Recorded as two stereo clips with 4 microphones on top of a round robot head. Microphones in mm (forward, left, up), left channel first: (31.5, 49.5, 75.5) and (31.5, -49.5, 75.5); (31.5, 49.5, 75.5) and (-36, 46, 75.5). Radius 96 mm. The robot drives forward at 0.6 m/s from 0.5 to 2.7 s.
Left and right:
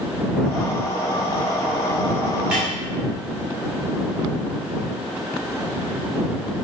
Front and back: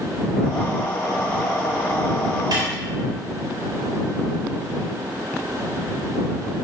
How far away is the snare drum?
About 3 m.